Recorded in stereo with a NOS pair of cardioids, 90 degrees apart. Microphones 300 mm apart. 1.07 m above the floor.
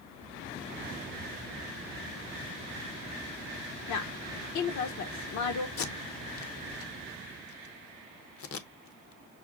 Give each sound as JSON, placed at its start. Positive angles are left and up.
{"t": 3.9, "sound": "a woman speaking", "azimuth_deg": 70, "distance_m": 1.1}
{"t": 5.8, "sound": "tape being pulled", "azimuth_deg": 50, "distance_m": 0.9}